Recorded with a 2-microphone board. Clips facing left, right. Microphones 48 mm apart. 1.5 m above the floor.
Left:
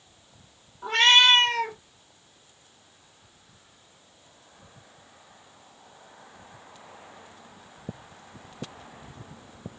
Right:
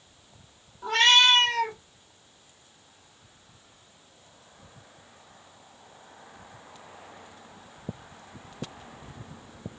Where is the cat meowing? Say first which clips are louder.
Left 1 dB; 25° left (ahead or behind), 1.0 m.